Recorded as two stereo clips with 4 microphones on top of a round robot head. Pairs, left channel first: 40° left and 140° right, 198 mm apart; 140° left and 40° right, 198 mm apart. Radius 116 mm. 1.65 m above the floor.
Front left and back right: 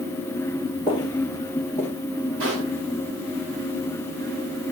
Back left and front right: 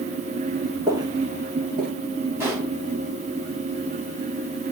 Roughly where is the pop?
Behind right.